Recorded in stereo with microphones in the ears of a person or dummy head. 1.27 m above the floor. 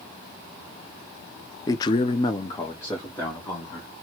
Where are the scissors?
No scissors in this recording.